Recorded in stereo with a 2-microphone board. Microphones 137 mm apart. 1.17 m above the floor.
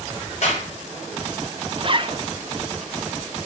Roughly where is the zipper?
Right.